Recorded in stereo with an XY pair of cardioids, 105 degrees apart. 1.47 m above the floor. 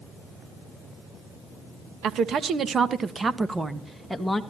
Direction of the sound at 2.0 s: 70° right.